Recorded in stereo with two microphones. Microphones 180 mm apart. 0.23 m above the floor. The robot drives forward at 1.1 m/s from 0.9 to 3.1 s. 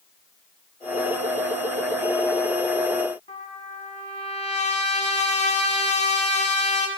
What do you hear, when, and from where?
3.3 s a trumpet: 40° left (ahead or behind), 1.3 m